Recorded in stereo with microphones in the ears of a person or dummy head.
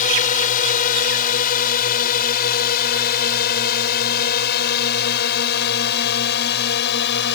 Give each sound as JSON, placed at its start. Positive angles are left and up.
{"t": 0.0, "sound": "a drone", "side_deg": 40}